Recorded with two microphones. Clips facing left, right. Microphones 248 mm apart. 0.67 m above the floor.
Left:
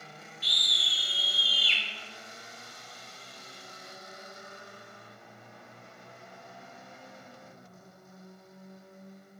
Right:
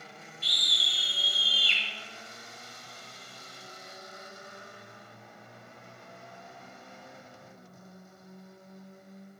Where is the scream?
25° right (ahead or behind), 1.6 m; by 1.8 s 45° right (ahead or behind), 1.6 m.